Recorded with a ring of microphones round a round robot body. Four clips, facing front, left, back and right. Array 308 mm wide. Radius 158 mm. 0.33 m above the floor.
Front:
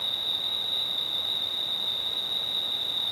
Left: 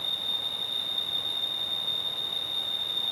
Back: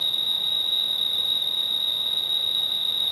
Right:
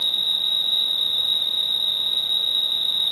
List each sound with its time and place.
0.0 s an insect: 130° right